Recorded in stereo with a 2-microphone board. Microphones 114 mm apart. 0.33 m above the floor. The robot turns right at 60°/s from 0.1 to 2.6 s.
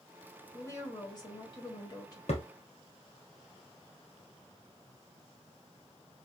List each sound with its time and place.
0.5 s a woman speaking: 35° left, 1.8 m; by 2.2 s 130° left, 1.8 m
2.3 s a thud: 70° left (ahead or behind), 1.7 m; by 2.5 s 60° left (ahead or behind), 1.7 m